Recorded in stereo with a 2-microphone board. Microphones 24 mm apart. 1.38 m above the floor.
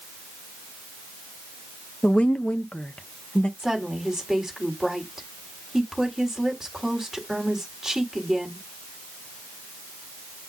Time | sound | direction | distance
2.0 | a woman speaking | 55° left (ahead or behind) | 0.7 m
3.6 | a woman speaking | 15° right (ahead or behind) | 3 m